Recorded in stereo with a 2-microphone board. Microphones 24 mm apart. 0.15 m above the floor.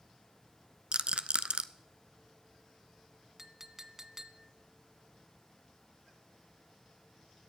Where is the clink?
25° right (ahead or behind), 0.6 m.